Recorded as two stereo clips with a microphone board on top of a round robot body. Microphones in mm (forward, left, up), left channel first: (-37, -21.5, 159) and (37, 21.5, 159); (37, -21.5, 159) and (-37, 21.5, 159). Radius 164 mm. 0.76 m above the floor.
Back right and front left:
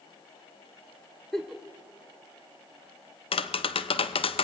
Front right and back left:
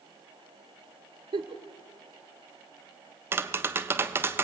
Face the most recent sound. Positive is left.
turn(degrees=-145)